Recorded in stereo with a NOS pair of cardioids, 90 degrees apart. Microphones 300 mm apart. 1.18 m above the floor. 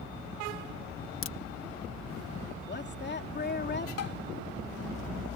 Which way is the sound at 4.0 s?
55° left.